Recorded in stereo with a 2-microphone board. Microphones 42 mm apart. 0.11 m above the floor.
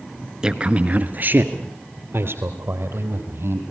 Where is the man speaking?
15° right (ahead or behind), 1.3 m; by 3.6 s 65° right (ahead or behind), 4 m.